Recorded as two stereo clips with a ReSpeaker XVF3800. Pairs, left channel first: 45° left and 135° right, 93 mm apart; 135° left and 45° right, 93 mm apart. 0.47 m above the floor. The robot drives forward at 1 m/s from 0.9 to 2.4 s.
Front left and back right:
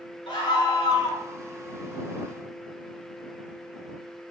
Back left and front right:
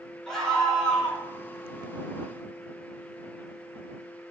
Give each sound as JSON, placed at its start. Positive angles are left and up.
{"t": 0.3, "sound": "a scream", "azimuth_deg": 50, "distance_m": 2.5}